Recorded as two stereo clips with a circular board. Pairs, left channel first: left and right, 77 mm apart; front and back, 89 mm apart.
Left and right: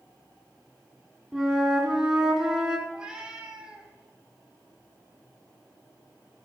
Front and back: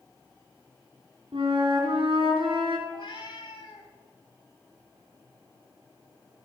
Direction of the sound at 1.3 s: 170° right.